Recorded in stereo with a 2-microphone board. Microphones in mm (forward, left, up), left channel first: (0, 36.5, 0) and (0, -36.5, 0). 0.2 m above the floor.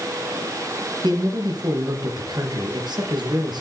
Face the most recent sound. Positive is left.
turn(degrees=-70)  # may be behind; listen again after turning